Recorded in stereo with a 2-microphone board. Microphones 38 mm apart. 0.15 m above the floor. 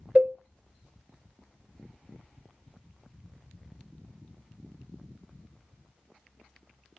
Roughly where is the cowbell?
Right.